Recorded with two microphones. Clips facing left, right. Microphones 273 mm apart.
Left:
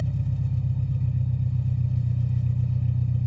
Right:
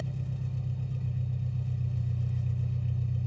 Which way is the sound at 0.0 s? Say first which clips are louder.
Left 7 dB; 60° left (ahead or behind).